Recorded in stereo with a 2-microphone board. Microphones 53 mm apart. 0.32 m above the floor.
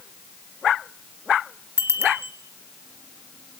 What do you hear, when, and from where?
1.8 s a bicycle bell: 50° right (ahead or behind), 3 m